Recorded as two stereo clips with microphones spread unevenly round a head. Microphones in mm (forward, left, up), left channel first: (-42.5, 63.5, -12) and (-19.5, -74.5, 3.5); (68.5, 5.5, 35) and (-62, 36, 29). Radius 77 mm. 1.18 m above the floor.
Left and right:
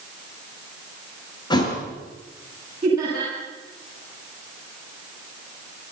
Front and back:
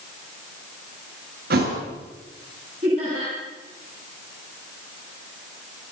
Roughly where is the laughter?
Behind right.